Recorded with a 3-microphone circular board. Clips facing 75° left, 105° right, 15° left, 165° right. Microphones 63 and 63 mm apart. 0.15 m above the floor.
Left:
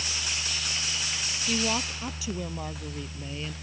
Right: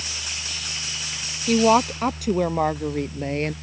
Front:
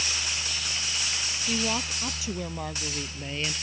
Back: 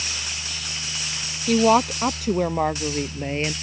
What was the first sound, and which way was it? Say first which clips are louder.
A woman speaking: right 13 dB, back 14 dB; 135° right.